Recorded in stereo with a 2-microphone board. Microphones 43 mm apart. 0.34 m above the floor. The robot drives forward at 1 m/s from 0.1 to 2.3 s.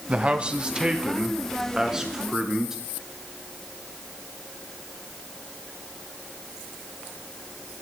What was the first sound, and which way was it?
A man speaking, 30° right (ahead or behind).